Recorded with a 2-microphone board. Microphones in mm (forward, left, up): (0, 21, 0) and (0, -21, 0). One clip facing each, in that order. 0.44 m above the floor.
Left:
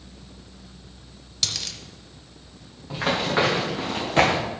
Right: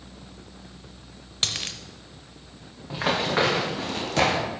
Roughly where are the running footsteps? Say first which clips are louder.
Left 1 dB; centre.